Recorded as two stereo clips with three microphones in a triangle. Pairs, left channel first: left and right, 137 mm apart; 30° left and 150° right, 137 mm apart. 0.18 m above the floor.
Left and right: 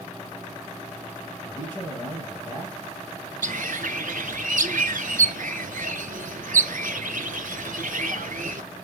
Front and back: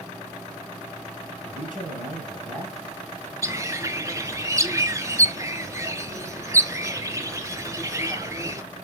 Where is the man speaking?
145° right, 3.5 m.